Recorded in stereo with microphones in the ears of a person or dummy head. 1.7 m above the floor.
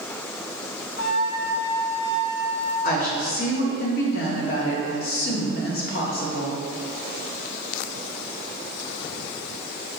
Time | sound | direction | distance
1.0 | a flute | 75° left (ahead or behind) | 1.5 m
2.8 | a woman speaking | 55° left (ahead or behind) | 0.9 m